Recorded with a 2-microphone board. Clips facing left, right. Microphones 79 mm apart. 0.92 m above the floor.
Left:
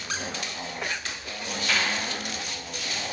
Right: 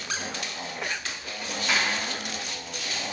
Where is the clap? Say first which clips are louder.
Right 1 dB; 20° right (ahead or behind), 2 m.